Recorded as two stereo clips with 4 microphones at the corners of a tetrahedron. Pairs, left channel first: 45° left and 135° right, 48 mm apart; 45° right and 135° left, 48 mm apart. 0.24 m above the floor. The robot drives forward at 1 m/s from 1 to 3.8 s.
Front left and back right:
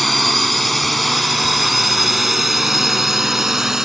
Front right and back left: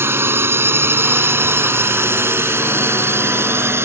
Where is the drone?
135° left; by 3.9 s 145° left.